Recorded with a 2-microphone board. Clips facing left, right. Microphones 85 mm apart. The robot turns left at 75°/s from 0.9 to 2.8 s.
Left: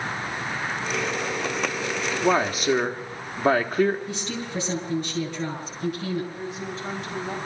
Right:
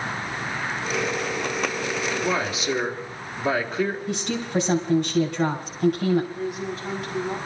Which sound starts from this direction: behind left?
A man speaking, at 2.2 s.